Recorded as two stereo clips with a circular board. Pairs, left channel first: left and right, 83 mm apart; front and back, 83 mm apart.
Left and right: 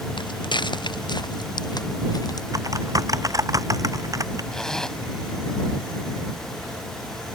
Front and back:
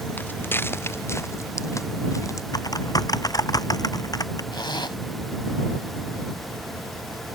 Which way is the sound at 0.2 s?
70° left.